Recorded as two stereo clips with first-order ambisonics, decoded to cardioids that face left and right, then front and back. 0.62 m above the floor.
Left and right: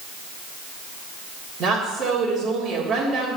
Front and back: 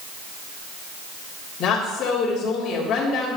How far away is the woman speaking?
About 1.9 m.